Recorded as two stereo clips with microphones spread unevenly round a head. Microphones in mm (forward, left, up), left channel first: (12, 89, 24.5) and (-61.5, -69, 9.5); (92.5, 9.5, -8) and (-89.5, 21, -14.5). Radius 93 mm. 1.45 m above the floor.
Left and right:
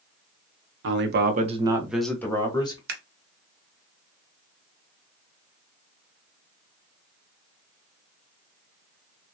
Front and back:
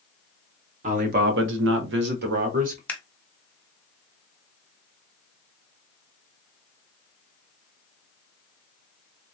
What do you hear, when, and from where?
0.8 s a man speaking: 130° right, 1.0 m; by 2.8 s 130° left, 1.5 m
2.9 s scissors: 80° right, 0.8 m